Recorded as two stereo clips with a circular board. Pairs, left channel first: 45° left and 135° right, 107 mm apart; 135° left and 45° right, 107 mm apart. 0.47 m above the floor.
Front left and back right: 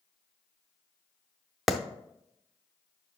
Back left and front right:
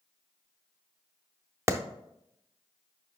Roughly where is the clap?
Ahead right.